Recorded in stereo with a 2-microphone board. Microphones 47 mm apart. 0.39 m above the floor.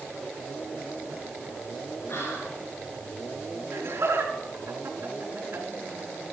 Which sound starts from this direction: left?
Whispering, at 2.1 s.